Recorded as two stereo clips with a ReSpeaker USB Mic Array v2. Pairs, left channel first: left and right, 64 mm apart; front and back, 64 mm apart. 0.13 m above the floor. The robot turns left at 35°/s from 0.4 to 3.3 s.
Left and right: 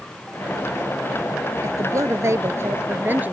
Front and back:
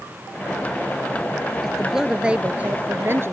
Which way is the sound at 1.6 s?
90° right.